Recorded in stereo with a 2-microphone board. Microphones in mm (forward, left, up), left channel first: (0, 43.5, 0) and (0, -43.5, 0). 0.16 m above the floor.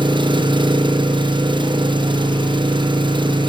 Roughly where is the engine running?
Right.